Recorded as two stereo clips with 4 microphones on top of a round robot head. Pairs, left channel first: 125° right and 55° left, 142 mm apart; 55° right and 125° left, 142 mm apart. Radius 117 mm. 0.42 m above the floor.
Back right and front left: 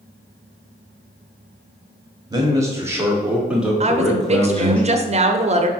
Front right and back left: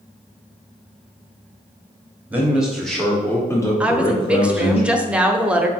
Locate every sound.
2.3 s a man speaking: 60° left, 1.3 m; by 4.8 s 50° right, 1.6 m
3.8 s a woman speaking: 45° left, 1.0 m